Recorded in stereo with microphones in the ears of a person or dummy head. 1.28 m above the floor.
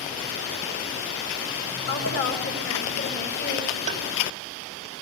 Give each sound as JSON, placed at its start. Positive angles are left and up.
{"t": 1.9, "sound": "a woman speaking", "side_deg": 50, "distance_m": 6.0}
{"t": 3.9, "sound": "tapping", "side_deg": -40, "distance_m": 3.0}